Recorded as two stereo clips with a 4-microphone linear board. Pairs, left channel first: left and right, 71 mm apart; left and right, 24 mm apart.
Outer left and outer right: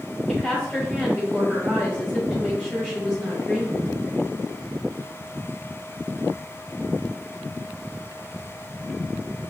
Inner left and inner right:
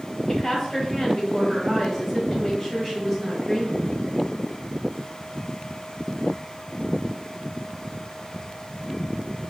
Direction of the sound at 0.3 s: 5° left (ahead or behind).